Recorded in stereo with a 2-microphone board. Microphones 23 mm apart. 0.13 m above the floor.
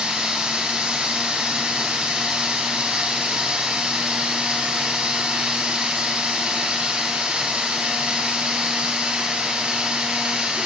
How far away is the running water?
About 2.5 m.